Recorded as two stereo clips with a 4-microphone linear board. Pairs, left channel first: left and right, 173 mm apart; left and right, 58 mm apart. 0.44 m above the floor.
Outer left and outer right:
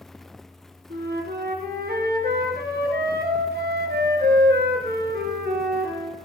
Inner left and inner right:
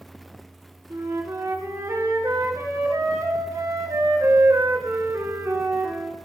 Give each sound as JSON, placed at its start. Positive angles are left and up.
{"t": 0.9, "sound": "a flute", "side_deg": -65, "distance_m": 2.5}